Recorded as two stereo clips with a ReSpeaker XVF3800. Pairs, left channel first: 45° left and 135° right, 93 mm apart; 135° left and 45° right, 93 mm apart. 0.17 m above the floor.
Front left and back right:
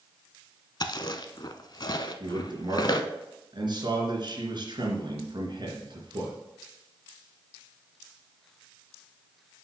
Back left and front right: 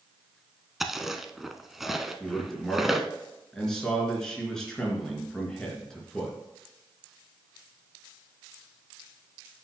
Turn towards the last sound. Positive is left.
turn(degrees=-145)